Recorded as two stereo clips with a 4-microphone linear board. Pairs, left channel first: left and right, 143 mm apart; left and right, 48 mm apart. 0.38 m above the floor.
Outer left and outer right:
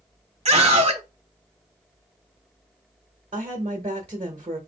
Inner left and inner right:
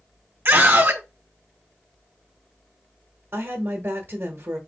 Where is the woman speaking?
40° right (ahead or behind), 1.2 m.